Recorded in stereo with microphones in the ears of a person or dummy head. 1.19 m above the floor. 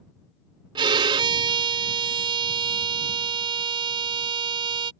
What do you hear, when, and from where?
0.8 s a violin: 30° right (ahead or behind)